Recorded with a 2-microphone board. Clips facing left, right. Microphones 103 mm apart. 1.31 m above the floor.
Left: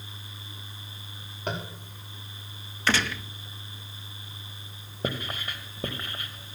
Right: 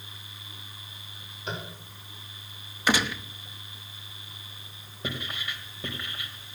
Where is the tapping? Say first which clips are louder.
Left 3 dB; 60° left (ahead or behind), 3.5 m.